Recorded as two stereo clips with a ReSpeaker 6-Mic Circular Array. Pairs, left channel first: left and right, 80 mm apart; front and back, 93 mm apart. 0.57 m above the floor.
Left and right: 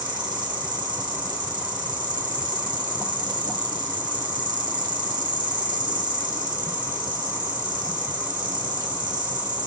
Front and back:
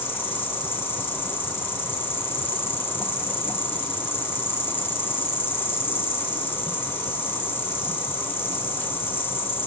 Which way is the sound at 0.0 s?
65° right.